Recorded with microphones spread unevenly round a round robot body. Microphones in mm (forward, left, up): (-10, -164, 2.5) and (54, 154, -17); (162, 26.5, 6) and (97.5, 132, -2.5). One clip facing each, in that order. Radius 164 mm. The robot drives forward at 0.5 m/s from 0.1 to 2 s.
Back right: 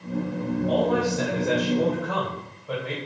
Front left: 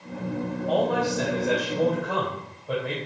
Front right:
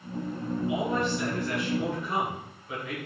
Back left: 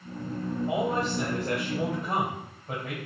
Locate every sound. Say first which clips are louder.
0.7 s a man speaking: back right 1 dB, even; 170° left, 3 m; by 3.0 s 175° left, 4 m